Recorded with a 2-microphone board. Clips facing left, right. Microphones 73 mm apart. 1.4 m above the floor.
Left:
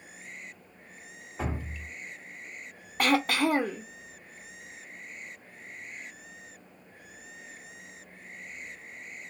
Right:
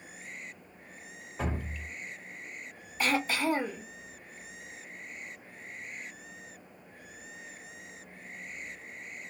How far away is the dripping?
About 0.9 m.